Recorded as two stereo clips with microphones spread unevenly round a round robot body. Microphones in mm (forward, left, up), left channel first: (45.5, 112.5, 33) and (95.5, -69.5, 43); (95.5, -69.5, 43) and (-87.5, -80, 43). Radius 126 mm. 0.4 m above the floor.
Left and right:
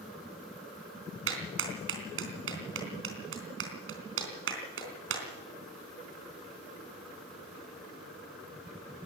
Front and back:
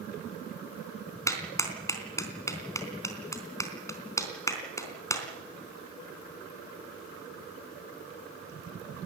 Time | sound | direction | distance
1.3 | a clap | 70° right | 3.5 m